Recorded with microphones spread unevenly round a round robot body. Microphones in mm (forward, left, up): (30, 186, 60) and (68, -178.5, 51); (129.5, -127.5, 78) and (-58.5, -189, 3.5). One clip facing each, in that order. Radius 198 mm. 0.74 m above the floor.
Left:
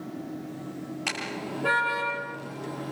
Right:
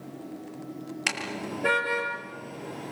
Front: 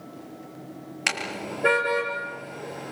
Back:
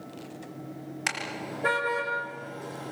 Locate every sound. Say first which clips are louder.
1.1 s a car horn: even, front 7 dB; 35° right, 7 m; by 2.9 s 45° right, 7.5 m